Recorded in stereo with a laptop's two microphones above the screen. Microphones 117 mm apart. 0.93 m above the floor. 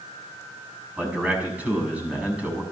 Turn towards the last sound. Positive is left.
turn(degrees=-10)  # may be behind; listen again after turning